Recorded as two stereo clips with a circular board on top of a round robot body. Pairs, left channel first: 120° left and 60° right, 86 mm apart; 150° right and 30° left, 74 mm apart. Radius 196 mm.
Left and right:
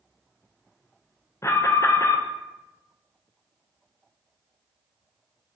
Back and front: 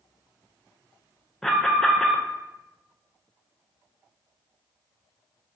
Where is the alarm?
130° left, 0.6 m.